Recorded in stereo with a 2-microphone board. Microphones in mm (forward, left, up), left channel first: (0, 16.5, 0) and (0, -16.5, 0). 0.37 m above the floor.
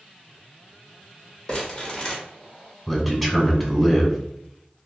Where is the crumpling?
25° left (ahead or behind), 1.0 m.